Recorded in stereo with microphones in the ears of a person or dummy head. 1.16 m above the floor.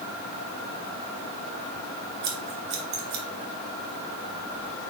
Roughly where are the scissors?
Right.